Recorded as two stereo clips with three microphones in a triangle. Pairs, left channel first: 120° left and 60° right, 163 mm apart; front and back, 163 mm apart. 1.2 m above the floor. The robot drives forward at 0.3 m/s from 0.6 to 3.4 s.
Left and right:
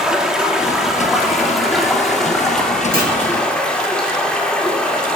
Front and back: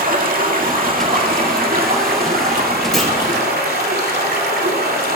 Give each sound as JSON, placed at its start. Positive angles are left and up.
{"t": 0.0, "sound": "running water", "azimuth_deg": -145, "distance_m": 2.0}
{"t": 2.9, "sound": "a clunk", "azimuth_deg": -90, "distance_m": 5.0}